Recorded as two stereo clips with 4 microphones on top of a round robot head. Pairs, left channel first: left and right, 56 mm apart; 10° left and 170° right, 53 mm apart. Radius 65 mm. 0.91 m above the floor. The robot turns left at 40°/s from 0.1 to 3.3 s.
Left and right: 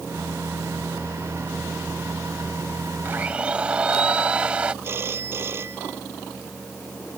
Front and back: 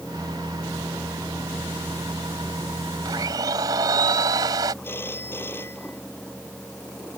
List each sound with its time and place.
3.0 s a blender: 155° right; by 4.7 s 165° right
4.8 s a phone ringing: 40° right